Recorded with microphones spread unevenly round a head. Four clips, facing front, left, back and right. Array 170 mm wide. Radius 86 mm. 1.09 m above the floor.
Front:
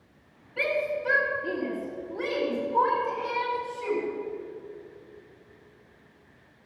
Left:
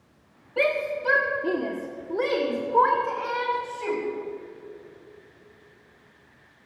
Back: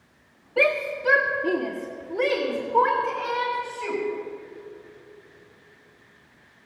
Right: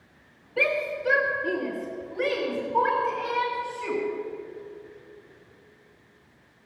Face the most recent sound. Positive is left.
turn(degrees=115)